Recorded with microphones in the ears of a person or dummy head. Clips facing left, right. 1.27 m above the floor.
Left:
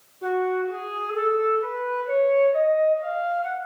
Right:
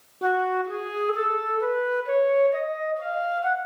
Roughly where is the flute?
Right.